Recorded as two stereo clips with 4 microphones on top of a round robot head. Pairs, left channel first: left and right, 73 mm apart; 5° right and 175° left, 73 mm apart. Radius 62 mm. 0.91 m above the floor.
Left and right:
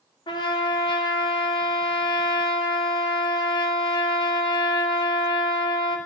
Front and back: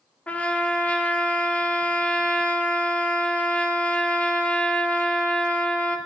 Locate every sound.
0.3 s a trumpet: 70° left, 1.6 m